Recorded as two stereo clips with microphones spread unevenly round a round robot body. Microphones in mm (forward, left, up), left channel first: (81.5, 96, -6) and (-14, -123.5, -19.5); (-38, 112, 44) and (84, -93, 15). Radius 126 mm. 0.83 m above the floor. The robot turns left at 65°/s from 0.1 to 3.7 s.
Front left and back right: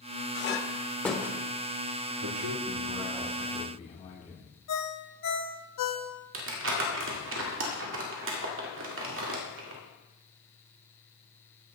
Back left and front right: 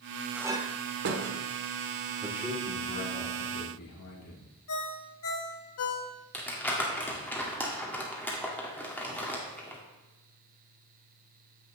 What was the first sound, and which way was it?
A clink, 25° left.